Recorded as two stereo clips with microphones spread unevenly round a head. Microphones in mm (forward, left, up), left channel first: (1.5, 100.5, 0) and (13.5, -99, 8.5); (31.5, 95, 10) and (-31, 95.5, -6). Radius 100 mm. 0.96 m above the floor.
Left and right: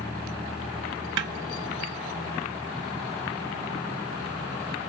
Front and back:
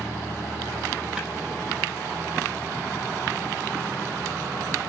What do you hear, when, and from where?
1.2 s a snare drum: 105° right, 1.5 m